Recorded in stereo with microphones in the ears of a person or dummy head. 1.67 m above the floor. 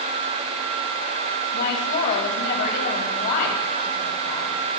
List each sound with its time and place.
1.5 s a woman speaking: 60° left (ahead or behind), 2 m